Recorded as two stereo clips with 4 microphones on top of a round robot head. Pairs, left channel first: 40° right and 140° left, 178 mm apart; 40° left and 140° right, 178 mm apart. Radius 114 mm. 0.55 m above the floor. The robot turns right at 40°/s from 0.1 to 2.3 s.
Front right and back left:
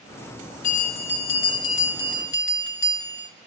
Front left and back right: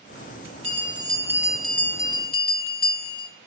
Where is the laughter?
I don't hear laughter.